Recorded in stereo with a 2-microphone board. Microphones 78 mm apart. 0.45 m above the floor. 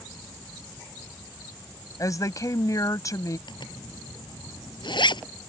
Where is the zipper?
75° left (ahead or behind).